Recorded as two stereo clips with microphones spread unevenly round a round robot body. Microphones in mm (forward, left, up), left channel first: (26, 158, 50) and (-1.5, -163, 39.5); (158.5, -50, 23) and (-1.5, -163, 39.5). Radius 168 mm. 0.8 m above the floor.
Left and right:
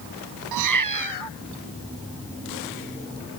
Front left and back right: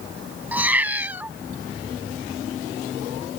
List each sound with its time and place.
0.5 s a cat meowing: 65° right